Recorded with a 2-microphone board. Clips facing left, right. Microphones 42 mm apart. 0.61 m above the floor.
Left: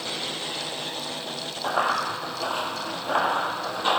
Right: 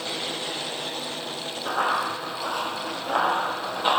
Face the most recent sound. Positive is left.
turn(degrees=-20)  # may be behind; listen again after turning